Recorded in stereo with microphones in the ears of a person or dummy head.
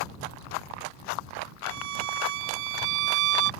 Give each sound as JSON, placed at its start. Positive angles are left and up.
{"t": 1.6, "sound": "a violin", "side_deg": -75}